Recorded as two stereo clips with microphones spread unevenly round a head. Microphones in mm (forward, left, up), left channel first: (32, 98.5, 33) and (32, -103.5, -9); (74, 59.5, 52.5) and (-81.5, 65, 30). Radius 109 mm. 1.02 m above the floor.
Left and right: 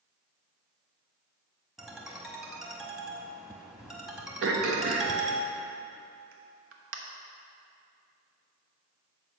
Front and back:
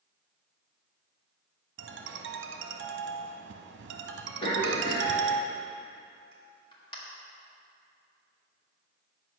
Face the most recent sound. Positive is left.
turn(degrees=-70)